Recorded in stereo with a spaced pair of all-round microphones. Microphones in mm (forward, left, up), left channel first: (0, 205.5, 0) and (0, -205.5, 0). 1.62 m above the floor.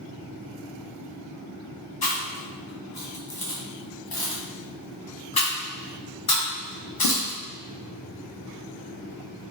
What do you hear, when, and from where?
2.0 s chewing: 60° left (ahead or behind), 0.8 m